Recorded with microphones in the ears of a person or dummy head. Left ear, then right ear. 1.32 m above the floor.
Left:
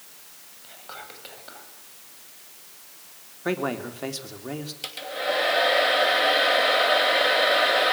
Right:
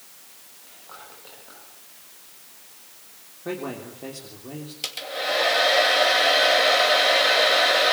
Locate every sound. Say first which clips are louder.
0.6 s whispering: left 4 dB; 60° left (ahead or behind), 8.5 m
3.5 s a man speaking: left 5 dB; 60° left (ahead or behind), 3.5 m
4.8 s a hair dryer: right 1 dB; 15° right (ahead or behind), 2.5 m